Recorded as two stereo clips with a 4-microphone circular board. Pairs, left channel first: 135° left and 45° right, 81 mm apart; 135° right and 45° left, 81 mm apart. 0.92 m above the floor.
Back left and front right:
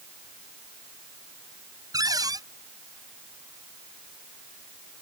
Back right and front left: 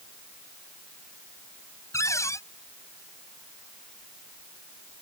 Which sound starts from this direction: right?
A cupboard door, at 1.9 s.